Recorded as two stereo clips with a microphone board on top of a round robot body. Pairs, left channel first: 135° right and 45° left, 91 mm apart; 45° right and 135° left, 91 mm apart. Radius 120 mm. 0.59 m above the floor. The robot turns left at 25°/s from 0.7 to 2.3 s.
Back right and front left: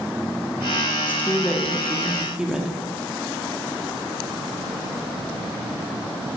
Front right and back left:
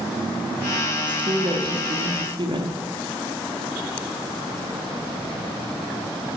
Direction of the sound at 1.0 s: 160° left.